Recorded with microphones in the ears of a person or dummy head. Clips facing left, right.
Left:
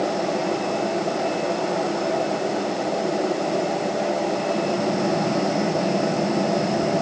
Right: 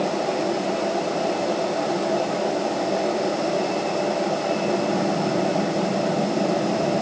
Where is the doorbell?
I don't hear a doorbell.